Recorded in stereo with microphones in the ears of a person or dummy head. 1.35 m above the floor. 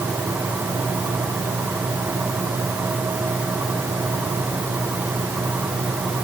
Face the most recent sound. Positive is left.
No sound to turn to.